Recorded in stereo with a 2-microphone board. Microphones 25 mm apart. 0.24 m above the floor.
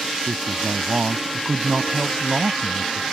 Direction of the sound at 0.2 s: 35° right (ahead or behind).